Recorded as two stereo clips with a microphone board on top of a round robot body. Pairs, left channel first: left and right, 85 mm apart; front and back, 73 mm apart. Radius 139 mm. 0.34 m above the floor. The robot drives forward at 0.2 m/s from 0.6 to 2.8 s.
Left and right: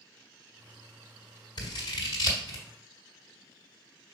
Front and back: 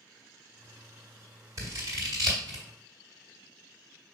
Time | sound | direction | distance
1.6 | scissors | 130° left | 1.1 m